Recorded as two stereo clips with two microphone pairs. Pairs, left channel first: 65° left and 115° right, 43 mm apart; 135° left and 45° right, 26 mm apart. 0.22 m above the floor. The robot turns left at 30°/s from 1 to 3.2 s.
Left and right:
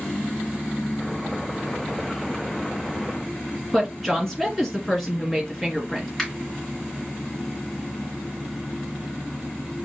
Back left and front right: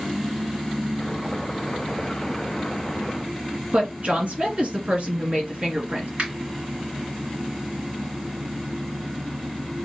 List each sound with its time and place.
3.7 s a woman speaking: 20° right, 2.5 m
6.2 s a finger snap: 30° right, 2.5 m